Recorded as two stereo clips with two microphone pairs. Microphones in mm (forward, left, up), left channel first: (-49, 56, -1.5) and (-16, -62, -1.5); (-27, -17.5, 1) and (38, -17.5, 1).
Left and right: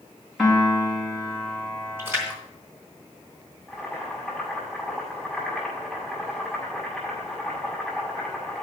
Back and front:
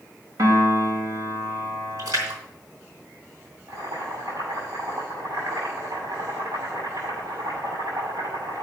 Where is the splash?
5° right, 3 m.